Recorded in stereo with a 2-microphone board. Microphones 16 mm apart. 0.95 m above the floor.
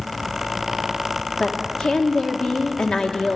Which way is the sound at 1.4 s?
70° left (ahead or behind).